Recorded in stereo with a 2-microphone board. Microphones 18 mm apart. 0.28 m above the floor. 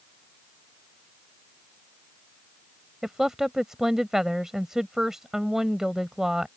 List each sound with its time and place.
3.0 s a woman speaking: 25° right (ahead or behind)